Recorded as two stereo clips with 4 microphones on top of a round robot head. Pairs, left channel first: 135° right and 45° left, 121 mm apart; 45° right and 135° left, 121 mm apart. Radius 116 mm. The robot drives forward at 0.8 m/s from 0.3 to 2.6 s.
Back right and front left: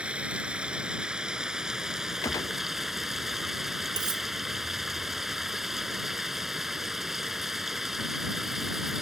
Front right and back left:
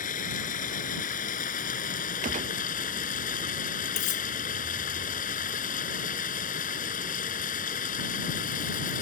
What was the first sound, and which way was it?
Running water, 40° right.